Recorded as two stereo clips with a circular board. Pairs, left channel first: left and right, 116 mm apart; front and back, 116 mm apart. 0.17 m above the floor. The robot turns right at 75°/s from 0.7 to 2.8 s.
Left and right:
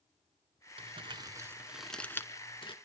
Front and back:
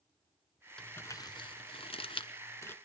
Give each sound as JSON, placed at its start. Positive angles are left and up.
{"t": 0.8, "sound": "crumpling", "azimuth_deg": -80, "distance_m": 1.1}